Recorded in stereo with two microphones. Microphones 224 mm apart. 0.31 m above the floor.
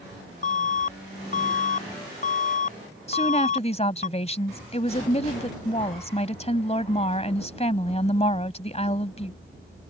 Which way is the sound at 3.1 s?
30° left (ahead or behind).